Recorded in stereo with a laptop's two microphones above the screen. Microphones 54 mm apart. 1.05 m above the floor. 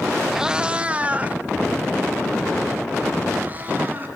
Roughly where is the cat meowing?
Centre.